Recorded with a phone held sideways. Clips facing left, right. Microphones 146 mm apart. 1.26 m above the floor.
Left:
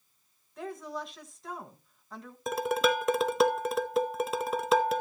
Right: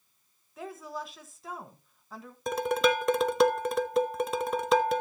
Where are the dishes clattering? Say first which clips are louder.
Right 1 dB; centre (ahead or behind), 0.5 m.